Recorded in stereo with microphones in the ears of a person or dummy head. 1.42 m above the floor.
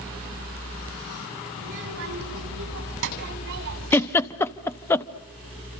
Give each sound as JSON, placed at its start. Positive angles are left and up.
{"t": 1.6, "sound": "a child speaking", "side_deg": -65, "distance_m": 6.5}
{"t": 3.9, "sound": "a giggle", "side_deg": 15, "distance_m": 0.9}